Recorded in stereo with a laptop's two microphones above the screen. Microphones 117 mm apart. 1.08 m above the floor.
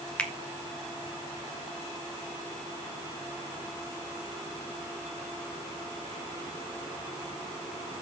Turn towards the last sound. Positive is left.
turn(degrees=10)  # may be behind; listen again after turning